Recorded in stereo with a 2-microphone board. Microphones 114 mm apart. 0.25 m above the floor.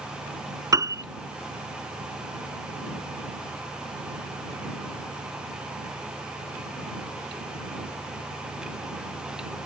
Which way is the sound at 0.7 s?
30° right (ahead or behind).